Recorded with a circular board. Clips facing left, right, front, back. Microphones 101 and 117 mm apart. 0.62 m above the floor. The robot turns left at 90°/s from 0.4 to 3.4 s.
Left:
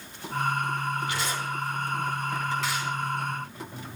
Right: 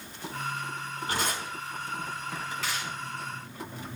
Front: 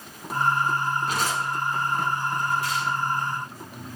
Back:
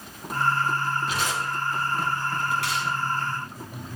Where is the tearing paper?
40° right, 5.5 m; by 2.9 s 155° left, 5.5 m.